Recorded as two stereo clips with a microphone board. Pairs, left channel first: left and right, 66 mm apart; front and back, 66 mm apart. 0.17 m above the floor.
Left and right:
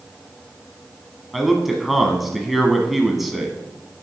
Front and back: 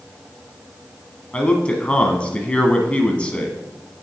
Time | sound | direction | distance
1.3 | a man speaking | 10° right | 1.0 m